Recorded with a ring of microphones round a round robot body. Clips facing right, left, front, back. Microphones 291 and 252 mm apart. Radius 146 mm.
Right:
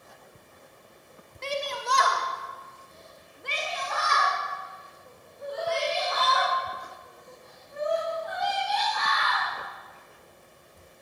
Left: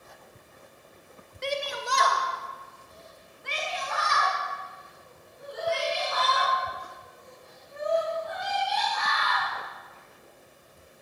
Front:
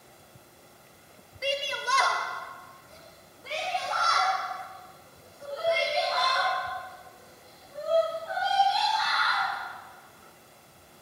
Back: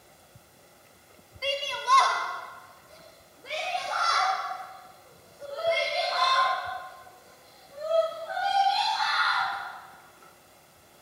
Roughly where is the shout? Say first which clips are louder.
Even, front 1 dB; ahead left.